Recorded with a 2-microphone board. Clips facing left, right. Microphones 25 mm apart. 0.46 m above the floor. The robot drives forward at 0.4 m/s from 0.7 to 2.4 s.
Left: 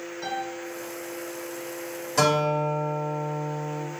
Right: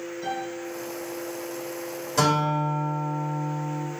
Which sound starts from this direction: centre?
A guitar, at 2.2 s.